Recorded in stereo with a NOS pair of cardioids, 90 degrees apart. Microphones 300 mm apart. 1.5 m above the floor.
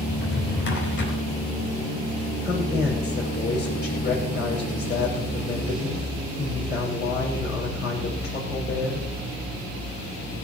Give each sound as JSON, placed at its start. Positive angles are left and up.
{"t": 0.1, "sound": "a drawer", "azimuth_deg": 40, "distance_m": 4.0}
{"t": 2.4, "sound": "a woman speaking", "azimuth_deg": 35, "distance_m": 6.0}